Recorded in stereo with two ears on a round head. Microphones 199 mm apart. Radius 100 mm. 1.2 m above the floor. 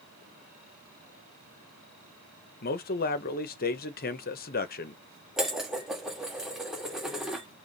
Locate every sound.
2.6 s a man speaking: 40° left (ahead or behind), 0.7 m
5.4 s dishes clattering: centre (ahead or behind), 1.4 m